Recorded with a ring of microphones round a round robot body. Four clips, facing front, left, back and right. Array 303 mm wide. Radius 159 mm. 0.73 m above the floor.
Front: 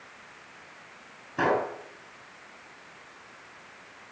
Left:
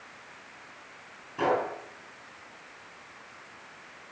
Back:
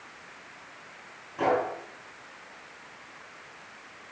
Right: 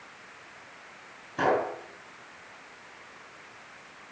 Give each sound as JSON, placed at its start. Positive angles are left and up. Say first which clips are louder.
{"t": 1.4, "sound": "a gunshot", "louder": "right 1 dB, even", "azimuth_deg": -15, "distance_m": 4.5}